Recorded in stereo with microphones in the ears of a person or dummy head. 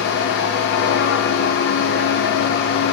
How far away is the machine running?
About 0.7 m.